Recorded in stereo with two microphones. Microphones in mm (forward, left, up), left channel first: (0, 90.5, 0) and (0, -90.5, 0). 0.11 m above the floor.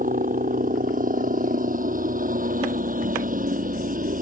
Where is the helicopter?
50° right (ahead or behind).